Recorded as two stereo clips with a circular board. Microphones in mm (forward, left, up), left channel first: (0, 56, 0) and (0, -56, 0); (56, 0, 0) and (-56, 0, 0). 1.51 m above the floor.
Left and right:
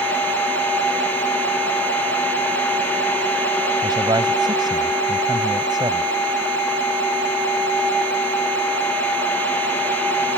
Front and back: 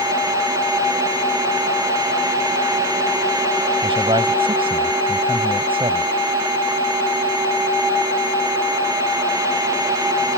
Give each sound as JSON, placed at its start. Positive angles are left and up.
{"t": 3.8, "sound": "a man speaking", "azimuth_deg": -140}